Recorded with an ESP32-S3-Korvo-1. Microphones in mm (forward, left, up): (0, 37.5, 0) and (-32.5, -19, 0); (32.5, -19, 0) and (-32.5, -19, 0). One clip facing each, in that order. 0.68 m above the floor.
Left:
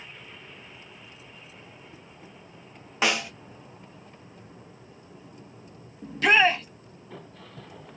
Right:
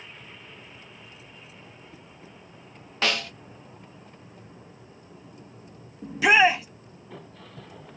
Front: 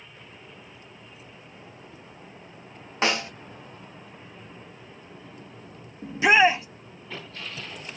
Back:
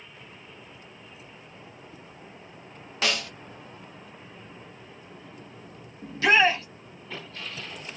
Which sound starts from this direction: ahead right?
A shout, at 6.0 s.